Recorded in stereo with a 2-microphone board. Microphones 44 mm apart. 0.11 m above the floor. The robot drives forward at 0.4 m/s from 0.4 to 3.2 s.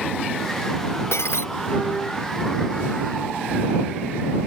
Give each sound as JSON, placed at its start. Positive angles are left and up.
{"t": 1.1, "sound": "breaking glass", "side_deg": 85}